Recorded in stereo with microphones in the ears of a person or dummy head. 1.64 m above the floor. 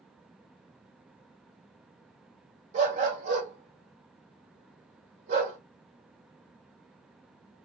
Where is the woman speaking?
I don't hear a woman speaking.